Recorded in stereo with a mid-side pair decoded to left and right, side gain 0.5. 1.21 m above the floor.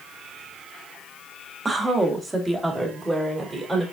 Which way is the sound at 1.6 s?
25° right.